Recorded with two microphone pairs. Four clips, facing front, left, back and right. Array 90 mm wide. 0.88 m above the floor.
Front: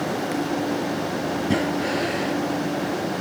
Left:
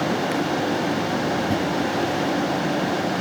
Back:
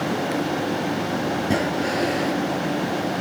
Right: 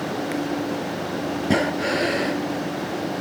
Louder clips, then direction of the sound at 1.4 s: Right 1 dB, even; 105° right.